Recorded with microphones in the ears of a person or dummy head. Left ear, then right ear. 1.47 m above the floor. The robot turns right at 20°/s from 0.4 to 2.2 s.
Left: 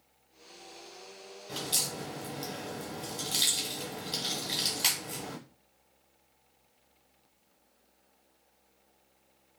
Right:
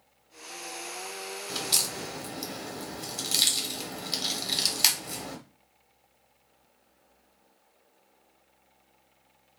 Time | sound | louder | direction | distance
1.5 | a crack | right 4 dB | 45° right (ahead or behind) | 1.0 m